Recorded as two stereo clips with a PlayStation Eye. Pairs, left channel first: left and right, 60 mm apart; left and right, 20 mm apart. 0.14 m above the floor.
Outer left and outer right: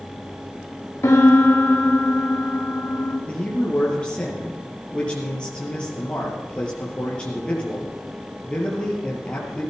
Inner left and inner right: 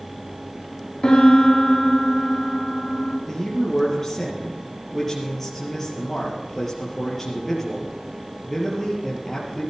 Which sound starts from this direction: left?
A piano, at 1.0 s.